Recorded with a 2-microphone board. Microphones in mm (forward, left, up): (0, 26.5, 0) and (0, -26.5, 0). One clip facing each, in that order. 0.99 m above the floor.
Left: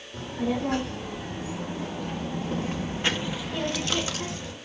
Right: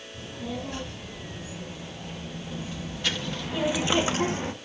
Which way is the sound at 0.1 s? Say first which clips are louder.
Left 7 dB; 85° left.